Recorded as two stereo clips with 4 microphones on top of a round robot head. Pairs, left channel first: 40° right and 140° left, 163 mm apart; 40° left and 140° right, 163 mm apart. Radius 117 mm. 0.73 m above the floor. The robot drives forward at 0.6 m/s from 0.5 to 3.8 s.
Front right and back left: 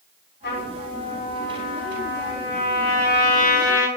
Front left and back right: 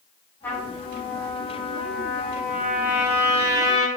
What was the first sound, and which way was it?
A trumpet, 35° right.